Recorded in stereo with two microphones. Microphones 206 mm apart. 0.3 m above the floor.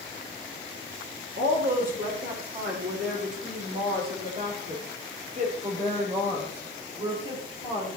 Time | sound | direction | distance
1.4 | a woman speaking | 70° right (ahead or behind) | 6 m